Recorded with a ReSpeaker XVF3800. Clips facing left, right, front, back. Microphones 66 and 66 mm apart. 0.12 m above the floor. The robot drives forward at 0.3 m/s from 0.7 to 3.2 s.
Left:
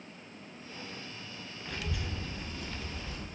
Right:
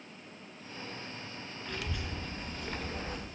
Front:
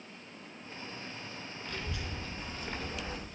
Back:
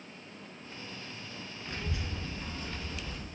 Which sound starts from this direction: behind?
A child speaking, at 1.6 s.